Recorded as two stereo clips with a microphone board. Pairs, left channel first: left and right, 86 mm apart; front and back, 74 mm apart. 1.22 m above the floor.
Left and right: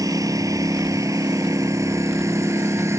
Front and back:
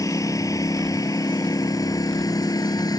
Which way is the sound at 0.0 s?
45° right.